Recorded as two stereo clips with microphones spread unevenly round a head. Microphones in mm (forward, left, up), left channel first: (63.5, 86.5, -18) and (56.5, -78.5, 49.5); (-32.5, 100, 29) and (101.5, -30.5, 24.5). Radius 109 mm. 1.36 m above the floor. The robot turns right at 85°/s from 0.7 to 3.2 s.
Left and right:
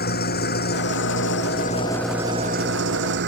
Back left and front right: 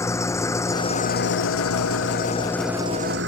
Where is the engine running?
60° left; by 3.3 s 85° right.